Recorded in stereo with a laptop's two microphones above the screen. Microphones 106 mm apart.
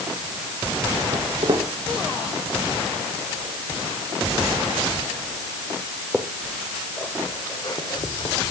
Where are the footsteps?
60° right (ahead or behind), 5 m; by 8.4 s 55° left (ahead or behind), 2 m.